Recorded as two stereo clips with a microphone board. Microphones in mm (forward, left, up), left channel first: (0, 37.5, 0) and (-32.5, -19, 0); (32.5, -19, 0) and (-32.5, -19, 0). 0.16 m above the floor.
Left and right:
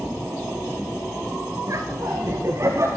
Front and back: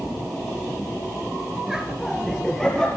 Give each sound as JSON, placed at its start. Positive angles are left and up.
{"t": 1.7, "sound": "laughter", "azimuth_deg": -100, "distance_m": 2.5}